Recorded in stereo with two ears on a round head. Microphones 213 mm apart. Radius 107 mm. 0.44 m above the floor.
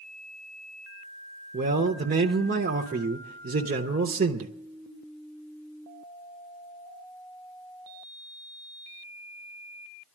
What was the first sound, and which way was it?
A man speaking, 35° right (ahead or behind).